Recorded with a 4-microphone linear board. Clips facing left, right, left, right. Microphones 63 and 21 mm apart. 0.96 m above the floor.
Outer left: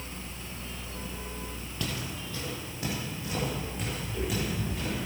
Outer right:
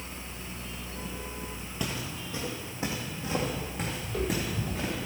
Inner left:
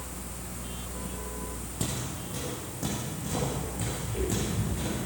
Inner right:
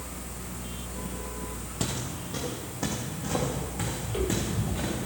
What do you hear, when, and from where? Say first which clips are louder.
1.8 s footsteps: outer right 1 dB, inner right 2 dB; 15° right (ahead or behind), 2.0 m; by 4.9 s 35° right (ahead or behind), 5 m
4.0 s footsteps: outer right 1 dB, inner right 2 dB; 60° right (ahead or behind), 1.9 m